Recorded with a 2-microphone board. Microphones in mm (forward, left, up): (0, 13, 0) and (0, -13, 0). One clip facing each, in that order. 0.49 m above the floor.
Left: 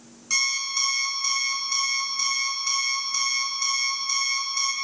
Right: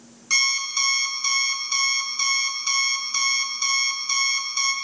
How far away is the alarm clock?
About 0.8 m.